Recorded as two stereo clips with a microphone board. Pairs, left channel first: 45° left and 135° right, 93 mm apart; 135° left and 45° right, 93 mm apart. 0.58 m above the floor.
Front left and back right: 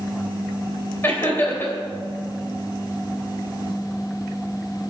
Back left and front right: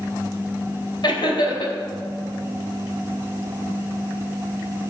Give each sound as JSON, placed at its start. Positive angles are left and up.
{"t": 1.0, "sound": "laughter", "azimuth_deg": 110, "distance_m": 3.0}